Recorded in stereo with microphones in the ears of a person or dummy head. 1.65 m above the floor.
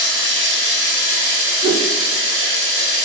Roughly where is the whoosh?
Right.